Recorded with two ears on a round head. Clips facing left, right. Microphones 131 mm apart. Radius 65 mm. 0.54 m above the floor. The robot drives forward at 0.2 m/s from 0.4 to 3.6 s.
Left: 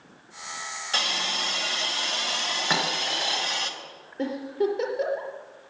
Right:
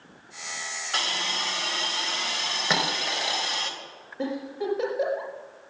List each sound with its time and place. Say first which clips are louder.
0.9 s a hiss: left 1 dB; 45° left (ahead or behind), 3 m; by 3.7 s 35° left (ahead or behind), 3.5 m
2.7 s a dropped coin: right 1 dB; 20° right (ahead or behind), 4 m
4.2 s a giggle: left 4 dB; 40° left (ahead or behind), 5 m